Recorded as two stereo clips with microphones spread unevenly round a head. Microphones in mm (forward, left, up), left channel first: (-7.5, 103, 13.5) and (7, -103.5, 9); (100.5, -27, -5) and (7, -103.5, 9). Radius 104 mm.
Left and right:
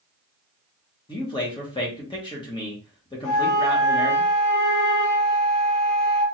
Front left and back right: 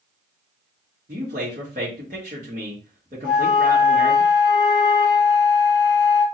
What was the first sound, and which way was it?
A man speaking, 165° left.